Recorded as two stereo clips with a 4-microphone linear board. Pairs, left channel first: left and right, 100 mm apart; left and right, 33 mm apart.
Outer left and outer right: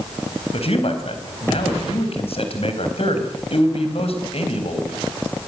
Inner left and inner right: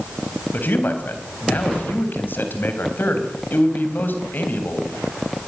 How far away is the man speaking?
About 4 m.